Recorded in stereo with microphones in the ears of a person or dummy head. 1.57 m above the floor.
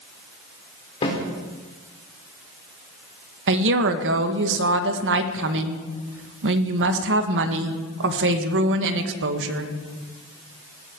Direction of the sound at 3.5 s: 75° right (ahead or behind).